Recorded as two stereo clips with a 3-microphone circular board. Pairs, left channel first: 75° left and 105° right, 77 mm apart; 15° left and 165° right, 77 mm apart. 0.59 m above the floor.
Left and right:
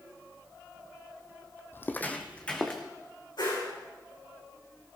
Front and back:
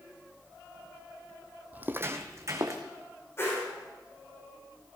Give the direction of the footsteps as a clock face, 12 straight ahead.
8 o'clock.